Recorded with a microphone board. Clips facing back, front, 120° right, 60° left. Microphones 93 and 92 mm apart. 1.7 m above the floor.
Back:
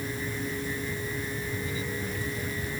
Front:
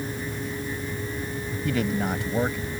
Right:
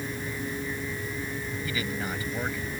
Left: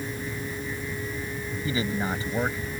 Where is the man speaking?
Straight ahead.